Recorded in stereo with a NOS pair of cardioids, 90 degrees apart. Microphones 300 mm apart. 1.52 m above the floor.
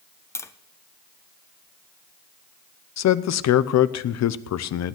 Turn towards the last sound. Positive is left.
turn(degrees=55)